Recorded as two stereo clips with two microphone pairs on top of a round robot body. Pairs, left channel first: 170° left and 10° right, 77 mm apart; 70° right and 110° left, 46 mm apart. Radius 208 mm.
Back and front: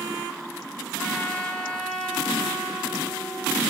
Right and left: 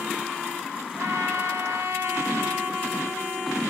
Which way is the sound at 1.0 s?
100° left.